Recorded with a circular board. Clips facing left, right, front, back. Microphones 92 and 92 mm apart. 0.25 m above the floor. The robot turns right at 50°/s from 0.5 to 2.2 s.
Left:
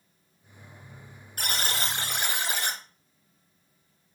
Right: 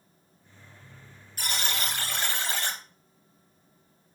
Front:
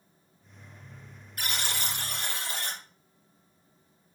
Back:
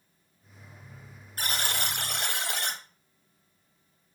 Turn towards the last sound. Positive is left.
turn(degrees=165)